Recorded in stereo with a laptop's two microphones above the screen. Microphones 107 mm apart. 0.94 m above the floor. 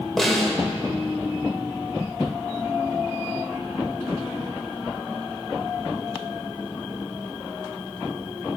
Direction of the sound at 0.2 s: 5° left (ahead or behind).